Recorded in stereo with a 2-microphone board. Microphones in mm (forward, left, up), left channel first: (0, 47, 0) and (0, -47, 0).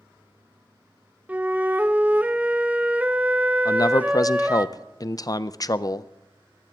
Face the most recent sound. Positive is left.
turn(degrees=40)  # may be behind; listen again after turning